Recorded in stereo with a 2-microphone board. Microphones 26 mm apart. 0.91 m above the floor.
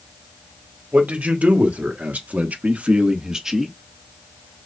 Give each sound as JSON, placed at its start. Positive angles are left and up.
{"t": 0.9, "sound": "a man speaking", "side_deg": -70, "distance_m": 2.0}